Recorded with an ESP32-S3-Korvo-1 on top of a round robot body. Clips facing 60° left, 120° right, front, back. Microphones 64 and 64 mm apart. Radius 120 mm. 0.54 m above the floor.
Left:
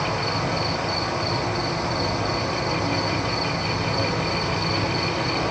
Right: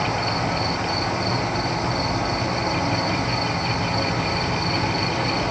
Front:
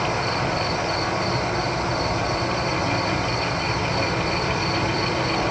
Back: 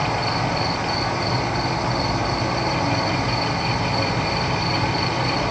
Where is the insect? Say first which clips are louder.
Right 1 dB, back 1 dB; 160° right, 4 m.